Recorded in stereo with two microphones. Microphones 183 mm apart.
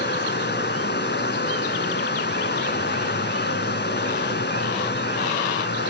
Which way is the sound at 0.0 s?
70° left (ahead or behind).